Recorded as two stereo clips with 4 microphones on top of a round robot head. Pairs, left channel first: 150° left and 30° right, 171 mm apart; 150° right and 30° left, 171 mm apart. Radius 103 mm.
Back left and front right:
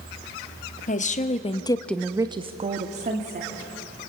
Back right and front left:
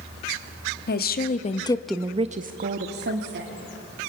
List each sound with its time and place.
0.9 s a woman speaking: 170° right, 1.7 m; by 3.5 s 15° left, 2.5 m